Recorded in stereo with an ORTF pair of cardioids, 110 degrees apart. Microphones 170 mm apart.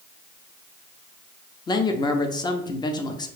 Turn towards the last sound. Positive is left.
turn(degrees=25)